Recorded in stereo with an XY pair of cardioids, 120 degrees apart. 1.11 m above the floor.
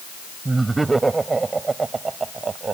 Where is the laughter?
15° right; by 2.8 s 30° right.